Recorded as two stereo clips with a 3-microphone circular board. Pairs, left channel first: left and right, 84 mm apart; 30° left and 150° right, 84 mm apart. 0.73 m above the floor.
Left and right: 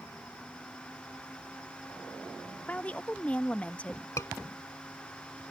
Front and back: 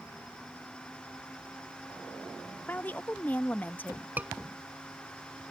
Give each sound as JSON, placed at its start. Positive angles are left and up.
{"t": 2.7, "sound": "a woman speaking", "azimuth_deg": 50}
{"t": 4.2, "sound": "a scream", "azimuth_deg": 140}